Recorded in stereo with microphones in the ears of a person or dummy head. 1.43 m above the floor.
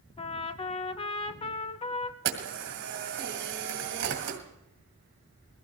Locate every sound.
0.2 s a trumpet: 30° left (ahead or behind), 0.7 m
2.2 s a camera shutter: 60° right (ahead or behind), 2 m